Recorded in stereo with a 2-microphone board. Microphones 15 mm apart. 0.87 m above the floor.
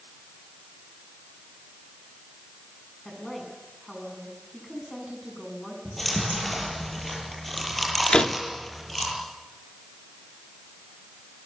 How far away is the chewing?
About 8.5 m.